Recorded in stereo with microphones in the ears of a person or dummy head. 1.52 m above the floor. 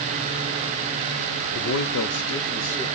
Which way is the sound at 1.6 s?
70° left (ahead or behind).